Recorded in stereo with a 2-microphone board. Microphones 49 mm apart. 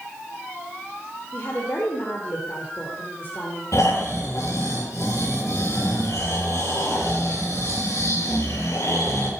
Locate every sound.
1.3 s a woman speaking: 45° left (ahead or behind), 3 m
3.7 s snoring: 85° left, 7.5 m